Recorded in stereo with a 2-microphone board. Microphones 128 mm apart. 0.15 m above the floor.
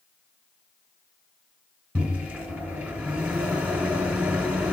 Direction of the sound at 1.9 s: 10° right (ahead or behind).